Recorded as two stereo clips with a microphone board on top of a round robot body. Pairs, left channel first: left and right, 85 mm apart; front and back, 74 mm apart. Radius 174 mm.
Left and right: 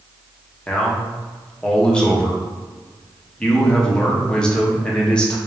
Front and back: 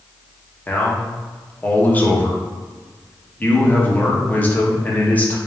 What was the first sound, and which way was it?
A man speaking, 25° left.